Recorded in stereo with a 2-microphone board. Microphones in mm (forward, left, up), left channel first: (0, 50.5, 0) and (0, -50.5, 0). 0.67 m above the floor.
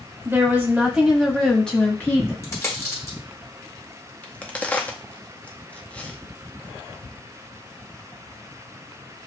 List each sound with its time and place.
0.2 s a woman speaking: 25° right (ahead or behind), 1.5 m; by 2.3 s 25° left (ahead or behind), 1.4 m
2.4 s a dropped coin: 30° left (ahead or behind), 1.3 m
4.2 s a crack: 15° left (ahead or behind), 0.7 m